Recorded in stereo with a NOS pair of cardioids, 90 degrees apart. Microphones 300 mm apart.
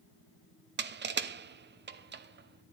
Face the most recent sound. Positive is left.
turn(degrees=-35)